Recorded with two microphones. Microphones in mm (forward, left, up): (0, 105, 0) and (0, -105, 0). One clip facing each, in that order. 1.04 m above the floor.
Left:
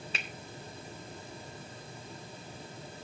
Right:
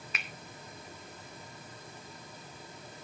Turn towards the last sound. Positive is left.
turn(degrees=30)  # may be behind; listen again after turning